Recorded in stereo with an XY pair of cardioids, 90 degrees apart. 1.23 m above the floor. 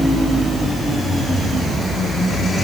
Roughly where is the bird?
I don't hear a bird.